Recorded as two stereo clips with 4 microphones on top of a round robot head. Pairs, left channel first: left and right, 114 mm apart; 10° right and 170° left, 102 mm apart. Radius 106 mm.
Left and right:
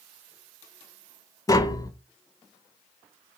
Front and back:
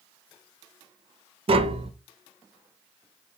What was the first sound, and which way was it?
Tapping, 150° left.